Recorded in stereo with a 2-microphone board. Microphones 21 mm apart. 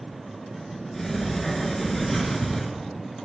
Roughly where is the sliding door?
Centre.